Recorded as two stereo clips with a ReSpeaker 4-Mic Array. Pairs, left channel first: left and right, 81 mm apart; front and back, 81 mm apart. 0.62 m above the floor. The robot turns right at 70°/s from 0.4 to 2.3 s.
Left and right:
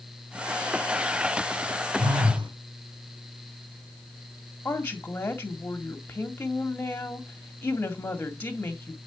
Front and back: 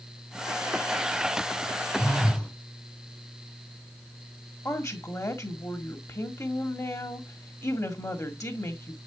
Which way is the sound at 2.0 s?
100° right.